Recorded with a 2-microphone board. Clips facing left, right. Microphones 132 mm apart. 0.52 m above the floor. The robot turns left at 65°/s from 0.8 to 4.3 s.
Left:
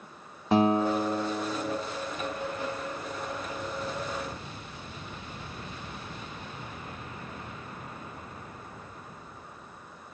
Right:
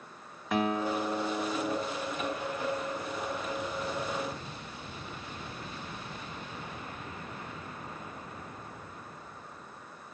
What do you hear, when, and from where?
0.5 s a guitar: 50° left, 1.2 m; by 1.8 s 15° right, 1.2 m